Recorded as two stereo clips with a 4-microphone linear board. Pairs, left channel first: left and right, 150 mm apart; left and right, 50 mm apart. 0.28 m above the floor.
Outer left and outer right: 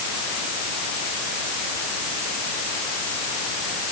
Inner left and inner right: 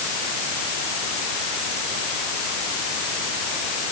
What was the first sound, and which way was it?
Only background noise.